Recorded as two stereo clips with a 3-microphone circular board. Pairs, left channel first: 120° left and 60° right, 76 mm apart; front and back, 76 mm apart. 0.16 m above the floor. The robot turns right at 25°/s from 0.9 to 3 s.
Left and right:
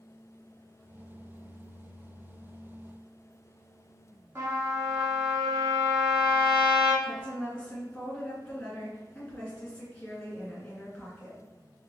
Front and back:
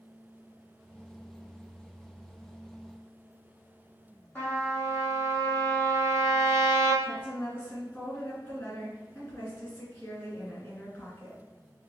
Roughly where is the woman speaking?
Ahead left.